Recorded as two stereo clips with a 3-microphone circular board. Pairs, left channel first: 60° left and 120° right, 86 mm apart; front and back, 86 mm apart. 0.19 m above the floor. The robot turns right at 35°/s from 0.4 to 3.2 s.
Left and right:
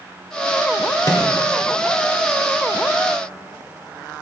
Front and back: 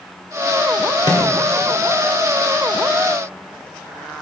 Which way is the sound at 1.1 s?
20° left.